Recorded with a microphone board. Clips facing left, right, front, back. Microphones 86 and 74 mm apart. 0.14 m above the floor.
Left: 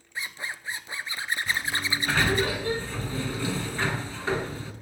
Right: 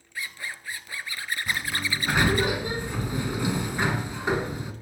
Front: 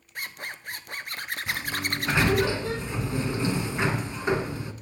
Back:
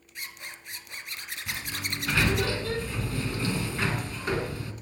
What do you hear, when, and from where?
0.1 s a zipper: 25° left, 0.5 m
1.5 s a sliding door: 40° right, 0.8 m